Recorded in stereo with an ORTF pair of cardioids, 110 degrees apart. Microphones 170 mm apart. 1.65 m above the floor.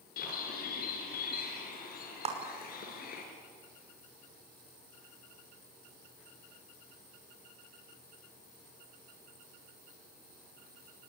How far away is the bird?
About 5 m.